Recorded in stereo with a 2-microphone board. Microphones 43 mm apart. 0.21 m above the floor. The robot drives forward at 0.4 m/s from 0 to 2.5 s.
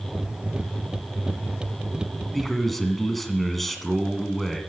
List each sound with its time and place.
2.3 s a man speaking: 5° left (ahead or behind), 1.6 m